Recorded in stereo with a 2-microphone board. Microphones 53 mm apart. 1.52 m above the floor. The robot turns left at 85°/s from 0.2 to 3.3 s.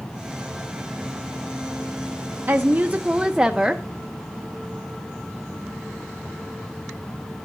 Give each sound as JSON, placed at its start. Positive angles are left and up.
{"t": 2.5, "sound": "a woman speaking", "azimuth_deg": -85, "distance_m": 0.6}